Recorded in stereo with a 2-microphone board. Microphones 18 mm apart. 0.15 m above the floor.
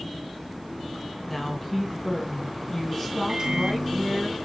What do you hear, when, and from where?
1.3 s a woman speaking: 20° left (ahead or behind), 1.6 m
3.3 s a microwave: 50° right (ahead or behind), 1.5 m